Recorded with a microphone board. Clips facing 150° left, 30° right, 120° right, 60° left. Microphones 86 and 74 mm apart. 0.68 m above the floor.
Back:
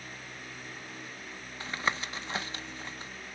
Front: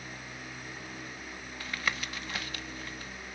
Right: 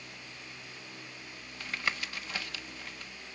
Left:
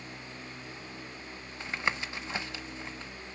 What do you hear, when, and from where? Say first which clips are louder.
1.6 s tapping: back 3 dB, left 3 dB; 110° left, 0.5 m